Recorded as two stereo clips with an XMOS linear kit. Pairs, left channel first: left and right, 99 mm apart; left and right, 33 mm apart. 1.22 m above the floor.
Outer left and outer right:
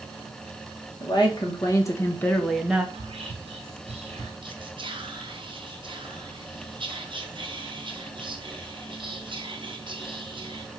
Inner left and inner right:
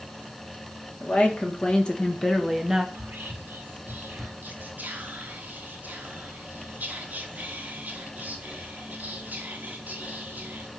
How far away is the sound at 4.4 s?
About 0.9 m.